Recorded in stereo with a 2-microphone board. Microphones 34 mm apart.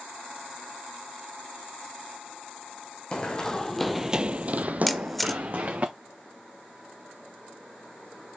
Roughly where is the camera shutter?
Centre.